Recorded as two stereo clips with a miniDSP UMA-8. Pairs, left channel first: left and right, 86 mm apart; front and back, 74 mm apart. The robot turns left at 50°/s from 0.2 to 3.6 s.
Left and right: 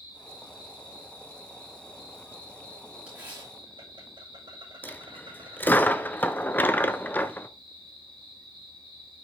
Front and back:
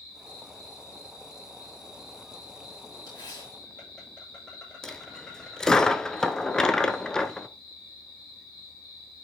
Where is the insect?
95° left, 8.5 m; by 9.2 s 75° right, 8.5 m.